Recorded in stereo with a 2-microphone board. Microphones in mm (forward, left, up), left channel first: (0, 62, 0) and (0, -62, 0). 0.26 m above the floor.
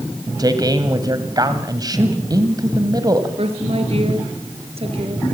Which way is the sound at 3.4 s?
55° right (ahead or behind).